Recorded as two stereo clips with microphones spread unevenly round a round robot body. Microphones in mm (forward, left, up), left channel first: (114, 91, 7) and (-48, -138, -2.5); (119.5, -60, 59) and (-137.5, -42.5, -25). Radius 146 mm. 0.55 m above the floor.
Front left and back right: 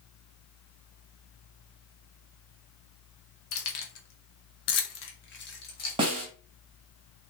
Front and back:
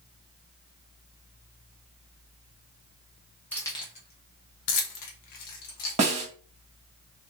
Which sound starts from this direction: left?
Keys jangling, at 3.5 s.